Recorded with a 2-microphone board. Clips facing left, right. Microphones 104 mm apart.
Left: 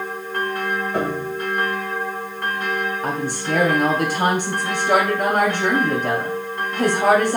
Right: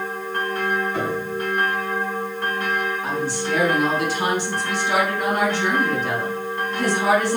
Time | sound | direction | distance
0.9 | a piano | 50° left (ahead or behind) | 2 m
3.0 | a woman speaking | 55° left (ahead or behind) | 2 m